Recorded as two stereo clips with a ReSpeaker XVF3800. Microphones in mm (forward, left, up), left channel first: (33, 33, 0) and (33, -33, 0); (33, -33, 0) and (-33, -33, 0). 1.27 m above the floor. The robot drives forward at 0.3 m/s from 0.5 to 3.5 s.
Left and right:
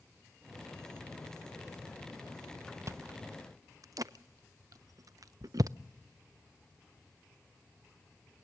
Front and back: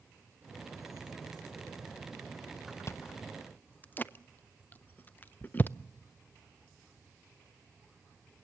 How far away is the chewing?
About 0.6 m.